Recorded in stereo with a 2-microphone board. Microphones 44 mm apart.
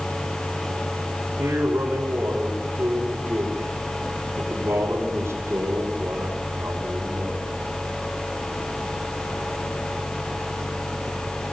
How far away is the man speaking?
About 5.5 m.